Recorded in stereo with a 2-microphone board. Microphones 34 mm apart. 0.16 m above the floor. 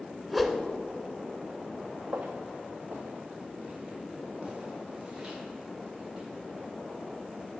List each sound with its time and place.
0.3 s a whoosh: 5° right (ahead or behind), 0.7 m
2.1 s footsteps: 75° right (ahead or behind), 0.8 m; by 6.3 s 20° right (ahead or behind), 4 m